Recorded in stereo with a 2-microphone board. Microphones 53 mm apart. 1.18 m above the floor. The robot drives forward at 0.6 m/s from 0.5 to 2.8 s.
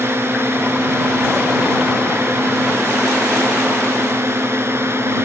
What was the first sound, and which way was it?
A drone, 50° right (ahead or behind).